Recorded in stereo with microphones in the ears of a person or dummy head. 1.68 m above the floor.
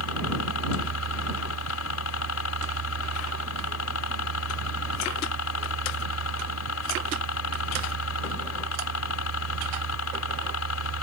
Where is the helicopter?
75° left (ahead or behind).